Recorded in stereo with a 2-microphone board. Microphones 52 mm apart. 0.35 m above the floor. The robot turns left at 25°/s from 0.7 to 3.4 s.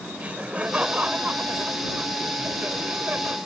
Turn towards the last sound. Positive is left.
turn(degrees=-110)